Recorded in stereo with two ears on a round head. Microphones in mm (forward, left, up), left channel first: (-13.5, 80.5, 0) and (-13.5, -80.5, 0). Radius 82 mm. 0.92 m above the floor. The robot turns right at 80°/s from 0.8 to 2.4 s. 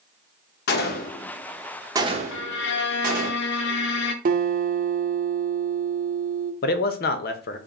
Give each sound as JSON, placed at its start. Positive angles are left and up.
{"t": 0.7, "sound": "a gunshot", "side_deg": 55, "distance_m": 0.8}
{"t": 2.3, "sound": "a violin", "side_deg": 75, "distance_m": 0.6}
{"t": 4.2, "sound": "a guitar", "side_deg": -45, "distance_m": 0.7}
{"t": 6.6, "sound": "a man speaking", "side_deg": 50, "distance_m": 0.6}